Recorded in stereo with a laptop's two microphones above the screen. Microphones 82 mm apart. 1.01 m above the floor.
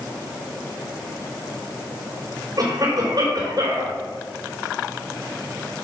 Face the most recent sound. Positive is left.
turn(degrees=-50)  # may be behind; listen again after turning